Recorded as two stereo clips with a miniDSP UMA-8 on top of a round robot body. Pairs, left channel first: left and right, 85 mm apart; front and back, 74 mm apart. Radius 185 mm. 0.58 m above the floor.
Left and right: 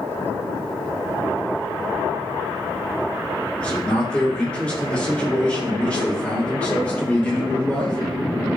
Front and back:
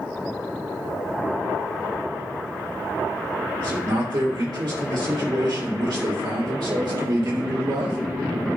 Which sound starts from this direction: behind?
A man speaking, at 3.6 s.